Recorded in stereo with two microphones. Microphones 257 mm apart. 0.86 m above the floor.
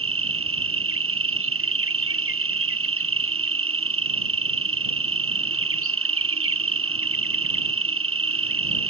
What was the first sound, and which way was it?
An insect, 55° right (ahead or behind).